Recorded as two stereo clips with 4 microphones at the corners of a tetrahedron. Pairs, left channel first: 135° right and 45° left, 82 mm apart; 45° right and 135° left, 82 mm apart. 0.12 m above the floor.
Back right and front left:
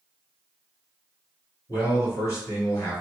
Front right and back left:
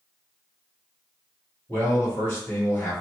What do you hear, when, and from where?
1.7 s a man speaking: 100° right, 1.9 m